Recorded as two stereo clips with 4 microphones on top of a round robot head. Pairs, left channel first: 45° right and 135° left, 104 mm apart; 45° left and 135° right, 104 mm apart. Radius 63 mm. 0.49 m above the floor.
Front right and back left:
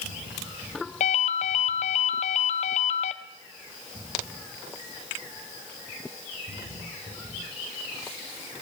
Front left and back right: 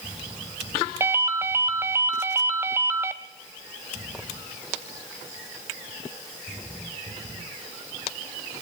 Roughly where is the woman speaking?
I don't hear a woman speaking.